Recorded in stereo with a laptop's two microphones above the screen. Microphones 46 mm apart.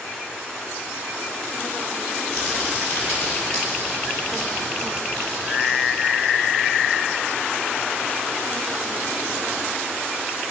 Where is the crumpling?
15° left (ahead or behind), 8 m.